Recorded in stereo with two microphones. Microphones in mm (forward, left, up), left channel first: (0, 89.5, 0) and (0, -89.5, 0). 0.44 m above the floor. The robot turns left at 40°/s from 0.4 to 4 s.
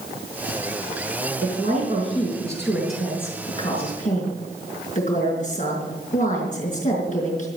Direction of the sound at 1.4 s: 120° right.